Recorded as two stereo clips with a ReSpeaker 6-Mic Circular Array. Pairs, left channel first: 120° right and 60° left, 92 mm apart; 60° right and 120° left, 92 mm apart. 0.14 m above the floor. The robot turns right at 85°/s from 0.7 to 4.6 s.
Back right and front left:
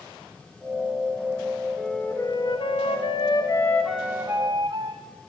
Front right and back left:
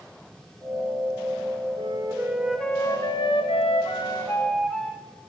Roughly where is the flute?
Behind left.